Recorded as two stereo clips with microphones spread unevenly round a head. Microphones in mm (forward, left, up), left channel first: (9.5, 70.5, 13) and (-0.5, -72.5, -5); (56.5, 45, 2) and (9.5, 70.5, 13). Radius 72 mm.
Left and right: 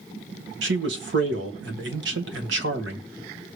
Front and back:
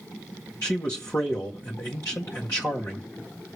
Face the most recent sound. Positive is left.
turn(degrees=-105)